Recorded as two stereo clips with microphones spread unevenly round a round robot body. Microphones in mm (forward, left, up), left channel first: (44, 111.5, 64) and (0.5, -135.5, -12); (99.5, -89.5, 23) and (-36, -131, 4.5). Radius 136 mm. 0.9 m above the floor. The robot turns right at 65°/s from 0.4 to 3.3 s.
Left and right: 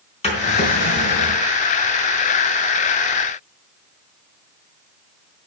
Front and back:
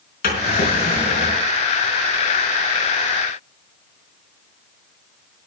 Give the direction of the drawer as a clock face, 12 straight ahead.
11 o'clock.